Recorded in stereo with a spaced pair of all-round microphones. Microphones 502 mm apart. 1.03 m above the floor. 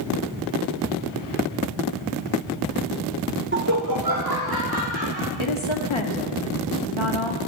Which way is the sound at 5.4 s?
65° left (ahead or behind).